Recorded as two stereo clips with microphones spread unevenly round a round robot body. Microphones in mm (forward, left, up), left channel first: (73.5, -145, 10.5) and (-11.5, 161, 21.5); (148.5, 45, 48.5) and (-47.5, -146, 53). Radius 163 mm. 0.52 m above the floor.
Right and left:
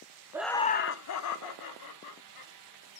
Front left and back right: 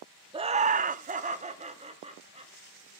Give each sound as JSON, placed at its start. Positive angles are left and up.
{"t": 0.3, "sound": "laughter", "azimuth_deg": 180, "distance_m": 0.7}